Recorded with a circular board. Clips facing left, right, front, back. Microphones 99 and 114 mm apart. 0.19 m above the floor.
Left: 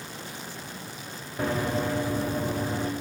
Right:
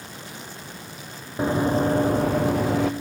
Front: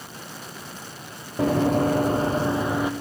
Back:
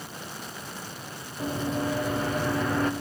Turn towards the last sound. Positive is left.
turn(degrees=-80)